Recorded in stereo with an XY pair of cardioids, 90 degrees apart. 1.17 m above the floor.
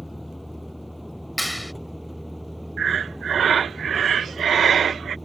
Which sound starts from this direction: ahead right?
Breathing, at 2.8 s.